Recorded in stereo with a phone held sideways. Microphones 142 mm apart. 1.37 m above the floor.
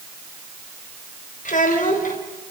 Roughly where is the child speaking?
Left.